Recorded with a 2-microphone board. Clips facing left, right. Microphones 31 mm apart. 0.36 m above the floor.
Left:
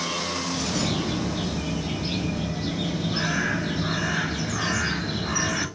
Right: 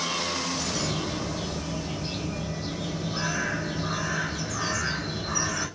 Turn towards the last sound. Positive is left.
turn(degrees=80)